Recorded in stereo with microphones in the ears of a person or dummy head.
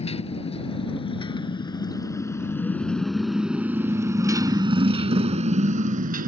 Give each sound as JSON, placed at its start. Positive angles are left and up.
{"t": 0.0, "sound": "a motorcycle", "side_deg": 35}